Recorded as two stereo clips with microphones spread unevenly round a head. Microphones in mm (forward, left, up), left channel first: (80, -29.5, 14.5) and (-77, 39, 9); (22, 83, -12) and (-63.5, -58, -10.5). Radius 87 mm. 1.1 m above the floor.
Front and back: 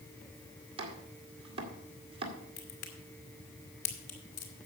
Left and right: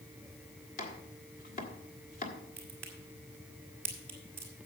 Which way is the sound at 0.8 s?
95° left.